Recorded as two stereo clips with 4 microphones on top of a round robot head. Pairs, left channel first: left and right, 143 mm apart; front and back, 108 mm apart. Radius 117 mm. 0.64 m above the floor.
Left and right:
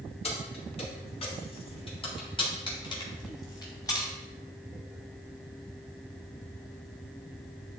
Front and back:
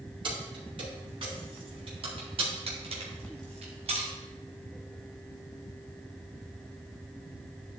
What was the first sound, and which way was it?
Keys jangling, 135° left.